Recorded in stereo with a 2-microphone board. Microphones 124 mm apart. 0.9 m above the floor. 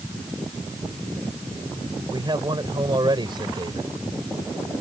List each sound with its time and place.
2.1 s a man speaking: 35° right (ahead or behind)